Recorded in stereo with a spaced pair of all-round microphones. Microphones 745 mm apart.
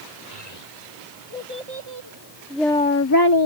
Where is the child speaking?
60° right (ahead or behind); by 3.5 s 40° left (ahead or behind).